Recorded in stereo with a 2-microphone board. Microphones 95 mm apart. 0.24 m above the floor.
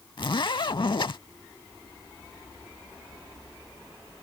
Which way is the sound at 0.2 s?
55° left (ahead or behind).